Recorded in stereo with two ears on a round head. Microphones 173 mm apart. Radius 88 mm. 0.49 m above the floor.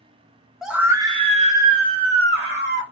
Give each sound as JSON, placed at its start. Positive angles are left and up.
{"t": 0.6, "sound": "a scream", "side_deg": 0, "distance_m": 0.7}